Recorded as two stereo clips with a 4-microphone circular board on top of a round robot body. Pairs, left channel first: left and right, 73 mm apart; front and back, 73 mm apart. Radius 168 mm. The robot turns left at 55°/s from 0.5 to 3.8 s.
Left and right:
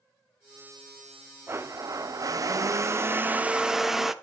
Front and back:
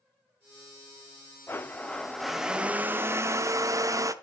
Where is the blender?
45° right, 0.8 m; by 4.1 s 175° right, 0.8 m.